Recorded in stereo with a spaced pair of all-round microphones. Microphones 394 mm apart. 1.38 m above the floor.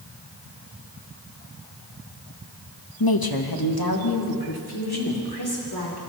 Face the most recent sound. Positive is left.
turn(degrees=70)  # may be behind; listen again after turning